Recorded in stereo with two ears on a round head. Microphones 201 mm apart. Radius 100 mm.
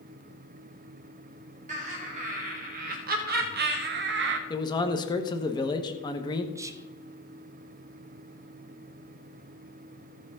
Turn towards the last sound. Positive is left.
turn(degrees=-15)  # may be behind; listen again after turning